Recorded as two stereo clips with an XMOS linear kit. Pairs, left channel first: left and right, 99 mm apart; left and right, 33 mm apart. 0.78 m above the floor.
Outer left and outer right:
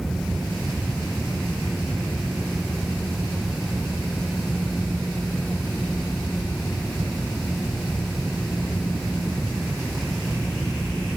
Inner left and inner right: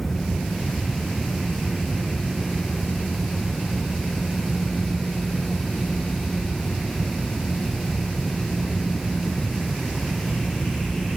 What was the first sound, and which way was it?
Only background noise.